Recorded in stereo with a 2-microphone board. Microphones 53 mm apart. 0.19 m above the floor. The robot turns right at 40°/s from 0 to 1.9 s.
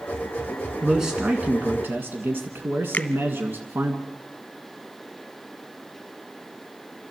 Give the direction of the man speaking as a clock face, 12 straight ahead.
6 o'clock.